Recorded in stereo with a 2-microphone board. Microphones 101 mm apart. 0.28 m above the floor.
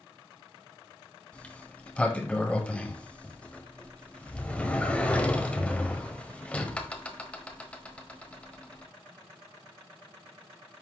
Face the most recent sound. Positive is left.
turn(degrees=10)  # may be behind; listen again after turning